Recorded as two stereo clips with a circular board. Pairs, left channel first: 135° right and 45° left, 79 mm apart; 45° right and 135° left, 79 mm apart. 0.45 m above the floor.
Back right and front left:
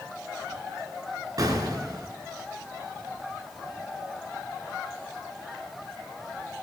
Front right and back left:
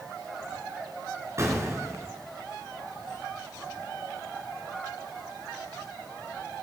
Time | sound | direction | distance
1.4 | an explosion | 80° left | 1.9 m